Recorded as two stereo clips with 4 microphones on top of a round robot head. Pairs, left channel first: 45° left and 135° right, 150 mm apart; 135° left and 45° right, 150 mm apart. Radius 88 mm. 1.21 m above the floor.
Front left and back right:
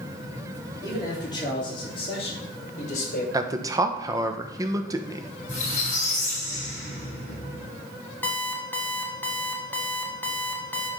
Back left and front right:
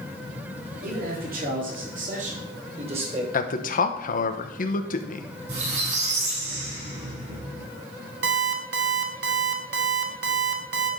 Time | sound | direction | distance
0.8 | a man speaking | 20° right | 3.5 m
3.3 | a man speaking | 160° left | 1.0 m
5.5 | a squeak | straight ahead | 5.5 m
8.2 | an alarm clock | 35° right | 1.1 m